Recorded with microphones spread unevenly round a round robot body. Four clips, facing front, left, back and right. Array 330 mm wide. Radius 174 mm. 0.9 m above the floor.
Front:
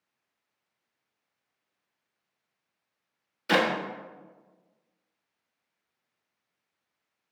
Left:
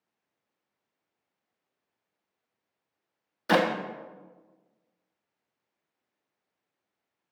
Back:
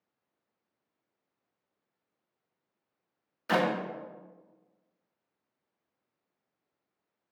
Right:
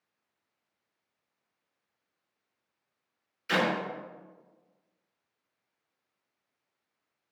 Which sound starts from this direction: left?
A clap, at 3.5 s.